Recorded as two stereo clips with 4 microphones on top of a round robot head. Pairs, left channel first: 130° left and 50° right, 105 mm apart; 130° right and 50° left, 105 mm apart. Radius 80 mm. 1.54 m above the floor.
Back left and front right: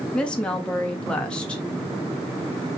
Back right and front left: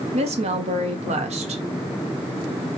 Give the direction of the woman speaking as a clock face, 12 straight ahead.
10 o'clock.